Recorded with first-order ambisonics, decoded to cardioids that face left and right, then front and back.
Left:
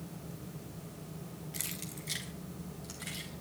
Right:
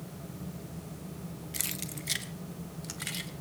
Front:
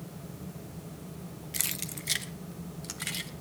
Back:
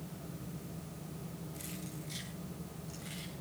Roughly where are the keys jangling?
Ahead.